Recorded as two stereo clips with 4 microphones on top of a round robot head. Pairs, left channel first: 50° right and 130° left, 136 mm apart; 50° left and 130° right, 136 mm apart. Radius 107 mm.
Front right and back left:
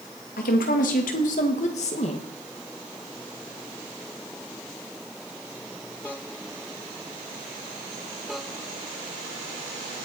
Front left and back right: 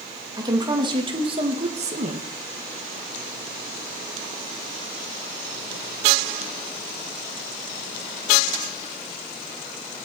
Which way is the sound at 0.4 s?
70° right.